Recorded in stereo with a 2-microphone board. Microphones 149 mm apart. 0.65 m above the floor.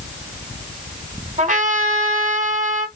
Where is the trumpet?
60° right (ahead or behind), 2.5 m.